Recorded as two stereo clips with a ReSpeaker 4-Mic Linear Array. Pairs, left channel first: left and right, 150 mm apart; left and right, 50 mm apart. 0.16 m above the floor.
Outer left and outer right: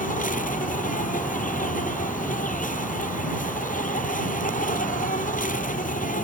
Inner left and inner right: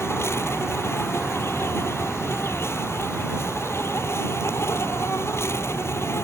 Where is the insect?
65° left (ahead or behind).